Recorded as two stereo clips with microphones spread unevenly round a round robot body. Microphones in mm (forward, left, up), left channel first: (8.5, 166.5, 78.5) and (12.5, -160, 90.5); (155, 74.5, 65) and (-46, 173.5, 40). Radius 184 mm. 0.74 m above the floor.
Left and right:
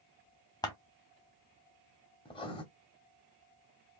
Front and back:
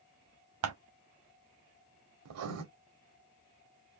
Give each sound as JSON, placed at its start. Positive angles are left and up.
{"t": 0.6, "sound": "scissors", "azimuth_deg": 170, "distance_m": 1.0}
{"t": 2.2, "sound": "writing", "azimuth_deg": 165, "distance_m": 1.0}